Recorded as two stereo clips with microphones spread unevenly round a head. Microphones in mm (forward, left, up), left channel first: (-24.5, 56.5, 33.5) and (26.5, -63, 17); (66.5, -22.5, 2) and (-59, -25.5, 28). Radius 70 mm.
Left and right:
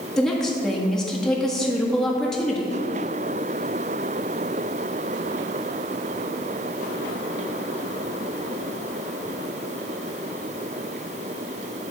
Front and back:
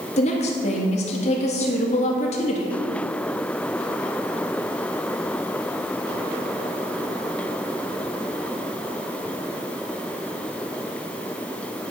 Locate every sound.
0.2 s a woman speaking: 25° left, 1.7 m